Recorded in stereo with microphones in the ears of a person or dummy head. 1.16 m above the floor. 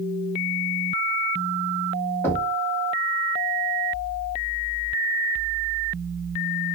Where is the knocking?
15° left (ahead or behind), 1.2 m.